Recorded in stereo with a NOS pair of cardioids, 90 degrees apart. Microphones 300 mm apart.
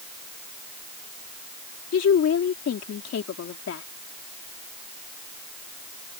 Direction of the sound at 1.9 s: 55° left.